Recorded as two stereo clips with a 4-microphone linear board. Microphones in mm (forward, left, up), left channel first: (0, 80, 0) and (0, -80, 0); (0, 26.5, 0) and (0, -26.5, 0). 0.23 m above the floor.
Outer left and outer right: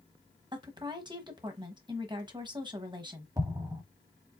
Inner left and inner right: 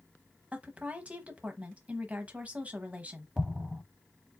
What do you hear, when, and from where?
0.5 s a woman speaking: 30° right (ahead or behind), 1.0 m
3.4 s an explosion: 20° right (ahead or behind), 1.1 m